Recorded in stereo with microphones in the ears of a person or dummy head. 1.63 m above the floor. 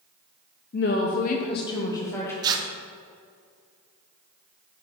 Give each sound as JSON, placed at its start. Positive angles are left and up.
{"t": 0.7, "sound": "a woman speaking", "side_deg": 35, "distance_m": 0.7}
{"t": 2.4, "sound": "tearing paper", "side_deg": -20, "distance_m": 0.6}